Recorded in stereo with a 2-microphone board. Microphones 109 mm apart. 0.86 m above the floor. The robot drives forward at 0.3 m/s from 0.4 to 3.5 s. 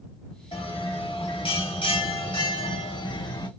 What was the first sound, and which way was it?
A bell, 50° left (ahead or behind).